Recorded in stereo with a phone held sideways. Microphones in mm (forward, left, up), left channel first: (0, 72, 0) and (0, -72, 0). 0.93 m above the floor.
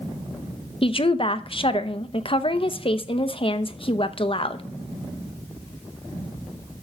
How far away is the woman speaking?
About 0.7 m.